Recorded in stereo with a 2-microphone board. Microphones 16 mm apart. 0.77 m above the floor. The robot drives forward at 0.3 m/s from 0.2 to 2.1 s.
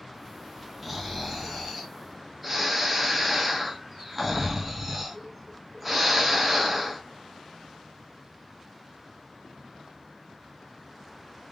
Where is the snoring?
10° right (ahead or behind), 1.2 m.